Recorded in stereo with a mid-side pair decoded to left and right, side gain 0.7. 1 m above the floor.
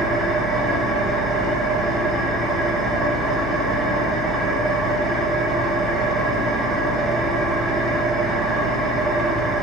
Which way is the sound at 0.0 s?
25° right.